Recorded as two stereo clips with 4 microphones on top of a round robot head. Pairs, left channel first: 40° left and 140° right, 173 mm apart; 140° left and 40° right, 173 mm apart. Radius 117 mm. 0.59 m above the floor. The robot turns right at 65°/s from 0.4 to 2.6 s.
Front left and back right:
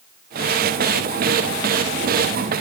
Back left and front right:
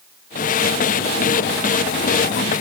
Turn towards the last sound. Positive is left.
No sound to turn to.